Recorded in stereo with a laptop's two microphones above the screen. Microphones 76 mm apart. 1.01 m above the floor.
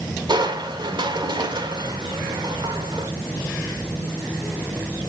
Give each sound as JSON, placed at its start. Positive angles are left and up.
{"t": 0.3, "sound": "crushing", "side_deg": -80, "distance_m": 1.8}